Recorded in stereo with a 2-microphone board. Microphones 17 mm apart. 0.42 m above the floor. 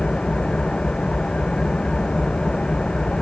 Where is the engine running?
75° left (ahead or behind).